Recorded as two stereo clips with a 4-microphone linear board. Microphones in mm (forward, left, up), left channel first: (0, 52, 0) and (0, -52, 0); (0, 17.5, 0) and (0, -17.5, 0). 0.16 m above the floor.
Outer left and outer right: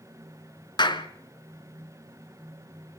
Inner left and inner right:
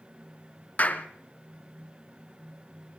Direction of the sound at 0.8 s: 45° left (ahead or behind).